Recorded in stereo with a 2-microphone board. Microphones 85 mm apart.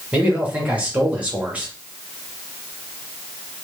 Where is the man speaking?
15° right (ahead or behind), 1.0 m.